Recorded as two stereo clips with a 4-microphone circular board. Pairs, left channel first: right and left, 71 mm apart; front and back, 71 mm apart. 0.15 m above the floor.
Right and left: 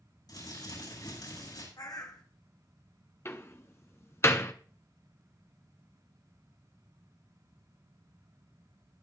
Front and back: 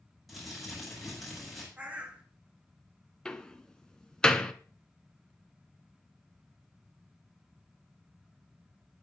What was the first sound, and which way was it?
Crumpling, 90° right.